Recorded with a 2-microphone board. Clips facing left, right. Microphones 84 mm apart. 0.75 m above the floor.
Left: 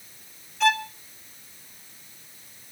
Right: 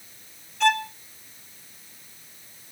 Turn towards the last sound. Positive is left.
turn(degrees=0)  # may be behind; listen again after turning